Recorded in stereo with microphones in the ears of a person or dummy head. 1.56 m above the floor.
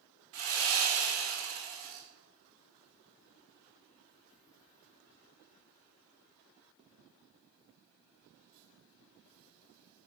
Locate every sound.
0.3 s sawing: 50° right (ahead or behind), 1.4 m